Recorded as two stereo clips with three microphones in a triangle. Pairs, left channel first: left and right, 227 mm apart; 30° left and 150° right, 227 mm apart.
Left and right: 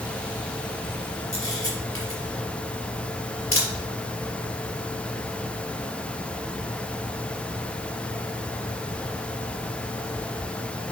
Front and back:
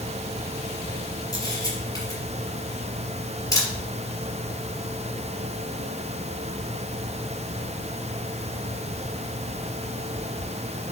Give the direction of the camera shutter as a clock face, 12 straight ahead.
9 o'clock.